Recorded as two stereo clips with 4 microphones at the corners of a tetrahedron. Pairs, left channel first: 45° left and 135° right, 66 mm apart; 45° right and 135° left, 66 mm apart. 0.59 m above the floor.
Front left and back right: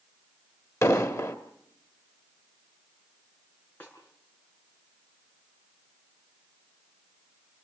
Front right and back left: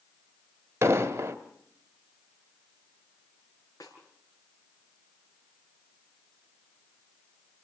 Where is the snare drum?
20° right, 7 m.